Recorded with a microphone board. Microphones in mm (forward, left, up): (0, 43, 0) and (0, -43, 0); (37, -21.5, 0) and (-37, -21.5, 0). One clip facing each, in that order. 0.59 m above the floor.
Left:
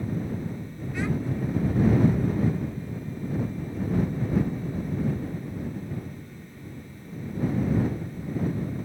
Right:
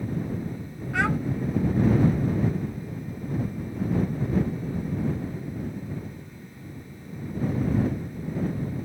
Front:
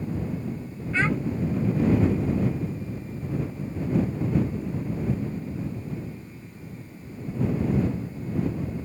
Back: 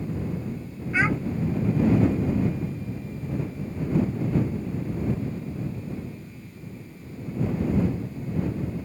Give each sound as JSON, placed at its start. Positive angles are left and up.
{"t": 0.9, "sound": "a child speaking", "azimuth_deg": -105}